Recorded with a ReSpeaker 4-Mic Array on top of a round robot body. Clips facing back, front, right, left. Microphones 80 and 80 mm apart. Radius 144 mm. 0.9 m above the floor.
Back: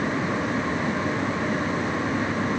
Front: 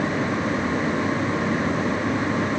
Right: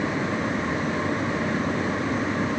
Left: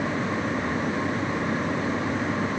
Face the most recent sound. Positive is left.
No sound to turn to.